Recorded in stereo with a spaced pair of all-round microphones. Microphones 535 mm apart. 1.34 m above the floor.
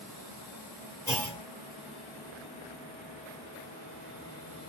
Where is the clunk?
5° left (ahead or behind), 2.0 m.